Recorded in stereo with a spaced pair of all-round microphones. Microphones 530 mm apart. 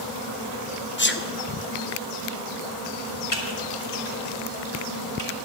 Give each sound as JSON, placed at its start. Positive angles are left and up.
{"t": 1.0, "sound": "a sneeze", "side_deg": 20, "distance_m": 0.8}
{"t": 3.3, "sound": "typing on a keyboard", "side_deg": 80, "distance_m": 1.8}